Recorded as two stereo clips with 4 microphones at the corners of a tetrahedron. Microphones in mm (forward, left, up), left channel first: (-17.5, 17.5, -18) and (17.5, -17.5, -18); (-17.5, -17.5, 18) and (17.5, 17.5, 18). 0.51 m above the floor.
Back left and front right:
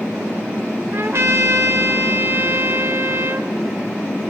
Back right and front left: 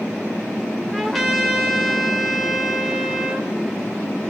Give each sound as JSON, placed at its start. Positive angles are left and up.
{"t": 0.9, "sound": "a trumpet", "azimuth_deg": -40, "distance_m": 1.5}